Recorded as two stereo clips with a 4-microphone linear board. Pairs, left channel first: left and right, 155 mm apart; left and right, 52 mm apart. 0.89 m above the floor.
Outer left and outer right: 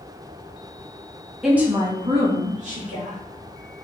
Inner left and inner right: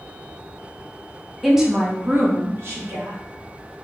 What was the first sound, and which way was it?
A woman speaking, 5° right (ahead or behind).